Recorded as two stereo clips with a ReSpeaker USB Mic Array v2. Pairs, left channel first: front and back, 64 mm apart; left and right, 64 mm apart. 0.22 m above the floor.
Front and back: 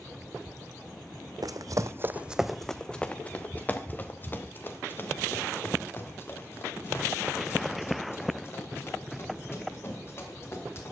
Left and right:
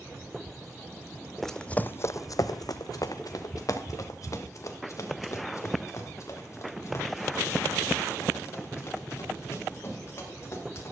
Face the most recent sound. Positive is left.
turn(degrees=45)